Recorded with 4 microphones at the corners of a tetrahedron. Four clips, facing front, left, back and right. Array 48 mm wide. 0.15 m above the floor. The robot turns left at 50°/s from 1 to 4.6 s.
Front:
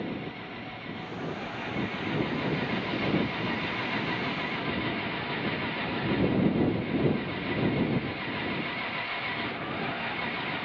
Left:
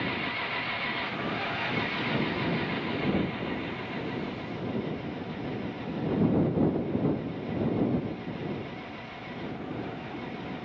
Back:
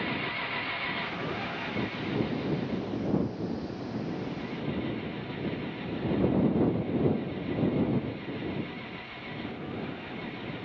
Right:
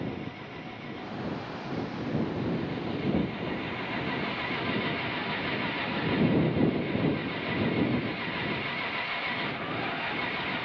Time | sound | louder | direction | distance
0.0 | an engine running | left 6 dB, back 4 dB | 125° left | ?